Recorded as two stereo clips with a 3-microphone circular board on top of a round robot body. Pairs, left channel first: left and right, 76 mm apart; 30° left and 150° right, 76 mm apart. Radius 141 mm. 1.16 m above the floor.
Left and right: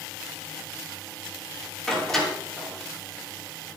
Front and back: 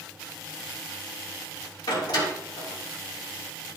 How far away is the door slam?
About 3 m.